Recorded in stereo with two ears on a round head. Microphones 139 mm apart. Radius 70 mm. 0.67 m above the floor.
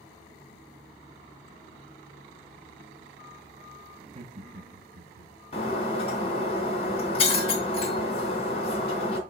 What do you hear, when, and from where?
4.0 s laughter: 30° right (ahead or behind), 1.0 m; by 5.3 s 45° right (ahead or behind), 1.7 m
5.5 s breaking glass: 40° left (ahead or behind), 2.5 m